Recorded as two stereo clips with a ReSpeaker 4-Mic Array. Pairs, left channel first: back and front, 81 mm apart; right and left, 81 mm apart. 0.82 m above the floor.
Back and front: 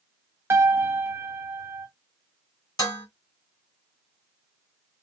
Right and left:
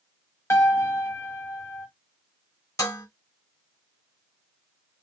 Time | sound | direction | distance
0.5 | a piano | 45° right | 0.6 m
2.8 | dishes clattering | 140° right | 1.3 m